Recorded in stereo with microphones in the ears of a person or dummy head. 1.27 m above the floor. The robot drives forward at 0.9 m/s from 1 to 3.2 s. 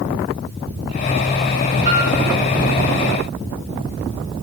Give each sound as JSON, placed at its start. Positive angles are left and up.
{"t": 1.9, "sound": "a piano", "side_deg": -35, "distance_m": 3.5}